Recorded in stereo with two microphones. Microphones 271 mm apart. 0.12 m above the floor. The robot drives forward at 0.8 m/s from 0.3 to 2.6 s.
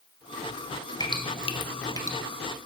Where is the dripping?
15° left (ahead or behind), 0.6 m; by 2.2 s 10° left (ahead or behind), 0.8 m.